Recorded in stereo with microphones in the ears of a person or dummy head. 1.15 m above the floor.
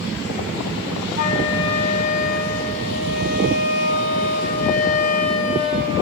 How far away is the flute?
About 6.5 m.